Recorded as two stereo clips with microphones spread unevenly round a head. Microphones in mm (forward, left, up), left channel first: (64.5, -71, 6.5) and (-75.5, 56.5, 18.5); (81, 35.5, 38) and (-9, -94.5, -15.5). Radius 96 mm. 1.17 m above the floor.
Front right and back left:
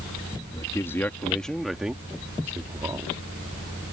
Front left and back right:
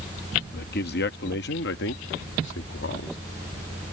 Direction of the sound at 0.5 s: 30° left.